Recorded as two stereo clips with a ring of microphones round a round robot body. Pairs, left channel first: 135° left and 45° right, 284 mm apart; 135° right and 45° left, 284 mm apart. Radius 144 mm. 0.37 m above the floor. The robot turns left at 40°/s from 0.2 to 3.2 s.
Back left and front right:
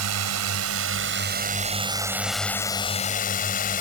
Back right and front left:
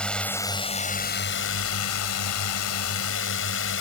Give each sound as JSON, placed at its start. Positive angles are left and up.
{"t": 0.0, "sound": "a drone", "azimuth_deg": -50}